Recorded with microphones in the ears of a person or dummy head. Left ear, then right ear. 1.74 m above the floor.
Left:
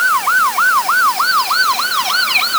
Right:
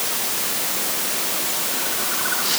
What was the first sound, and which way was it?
Only background noise.